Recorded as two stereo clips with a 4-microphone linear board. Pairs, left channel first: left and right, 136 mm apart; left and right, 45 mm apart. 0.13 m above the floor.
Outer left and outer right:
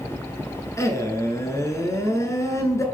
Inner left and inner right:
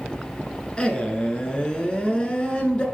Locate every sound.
0.8 s a man speaking: 20° left (ahead or behind), 1.3 m